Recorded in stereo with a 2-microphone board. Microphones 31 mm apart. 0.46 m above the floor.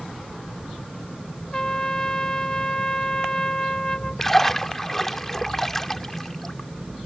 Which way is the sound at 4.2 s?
10° left (ahead or behind).